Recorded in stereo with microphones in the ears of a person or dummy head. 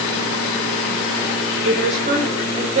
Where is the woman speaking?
35° right (ahead or behind), 5.5 m.